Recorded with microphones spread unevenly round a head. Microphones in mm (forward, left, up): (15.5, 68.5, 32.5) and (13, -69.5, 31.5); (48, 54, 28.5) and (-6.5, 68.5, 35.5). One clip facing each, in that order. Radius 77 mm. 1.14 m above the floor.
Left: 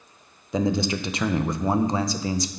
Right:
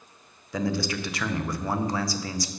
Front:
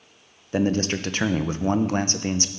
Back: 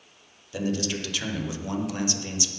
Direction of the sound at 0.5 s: 25° left.